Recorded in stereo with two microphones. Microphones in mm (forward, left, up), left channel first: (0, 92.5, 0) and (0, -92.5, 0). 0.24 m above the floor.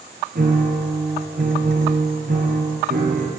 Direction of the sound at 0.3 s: 55° right (ahead or behind).